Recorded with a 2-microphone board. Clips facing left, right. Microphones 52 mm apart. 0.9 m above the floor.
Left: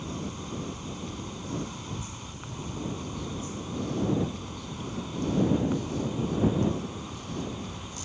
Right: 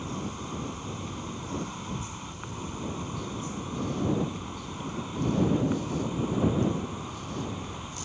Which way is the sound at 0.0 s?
15° right (ahead or behind).